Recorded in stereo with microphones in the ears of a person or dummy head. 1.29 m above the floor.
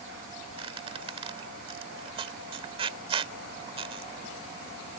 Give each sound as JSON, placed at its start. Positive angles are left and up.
{"t": 0.6, "sound": "a squeak", "side_deg": -25}